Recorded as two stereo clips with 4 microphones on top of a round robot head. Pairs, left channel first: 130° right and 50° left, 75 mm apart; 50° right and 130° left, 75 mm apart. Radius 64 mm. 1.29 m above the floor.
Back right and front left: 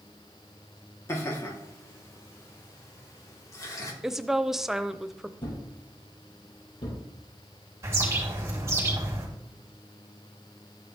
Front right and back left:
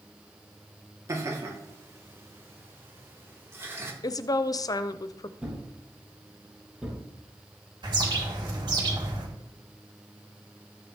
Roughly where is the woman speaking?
Ahead right.